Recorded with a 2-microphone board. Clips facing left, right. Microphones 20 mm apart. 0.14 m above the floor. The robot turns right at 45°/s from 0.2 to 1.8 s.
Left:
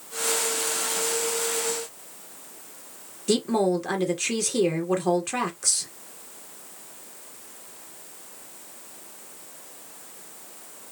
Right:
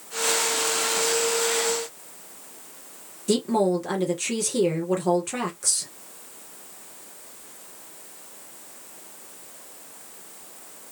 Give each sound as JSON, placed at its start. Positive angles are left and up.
{"t": 3.3, "sound": "a woman speaking", "side_deg": 10, "distance_m": 2.0}